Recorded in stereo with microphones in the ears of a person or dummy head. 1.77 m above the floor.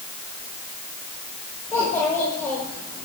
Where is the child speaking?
15° left (ahead or behind), 5 m.